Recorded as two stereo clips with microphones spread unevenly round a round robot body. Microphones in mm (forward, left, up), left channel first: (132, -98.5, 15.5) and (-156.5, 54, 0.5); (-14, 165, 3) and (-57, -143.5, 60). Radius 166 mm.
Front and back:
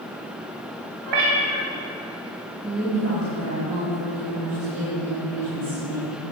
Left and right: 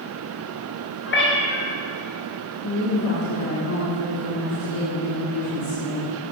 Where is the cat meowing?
140° left, 2 m.